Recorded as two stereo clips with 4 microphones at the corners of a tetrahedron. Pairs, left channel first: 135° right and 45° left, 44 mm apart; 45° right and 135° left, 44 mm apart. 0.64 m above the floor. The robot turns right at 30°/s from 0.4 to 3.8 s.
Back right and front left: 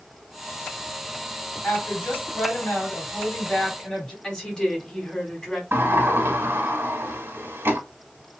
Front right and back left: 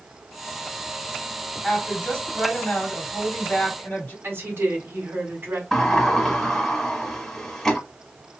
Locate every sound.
1.6 s a woman speaking: 120° right, 1.9 m; by 4.1 s 55° right, 1.9 m
4.2 s a woman speaking: 155° left, 1.4 m
5.7 s a sliding door: 35° left, 1.0 m